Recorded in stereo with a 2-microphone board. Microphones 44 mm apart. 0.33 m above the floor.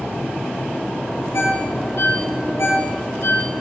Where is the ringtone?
70° left (ahead or behind), 5 m.